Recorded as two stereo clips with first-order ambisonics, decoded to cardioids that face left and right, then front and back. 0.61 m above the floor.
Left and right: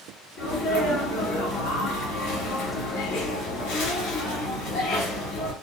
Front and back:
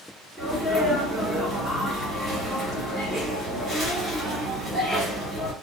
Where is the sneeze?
80° left, 1.5 m.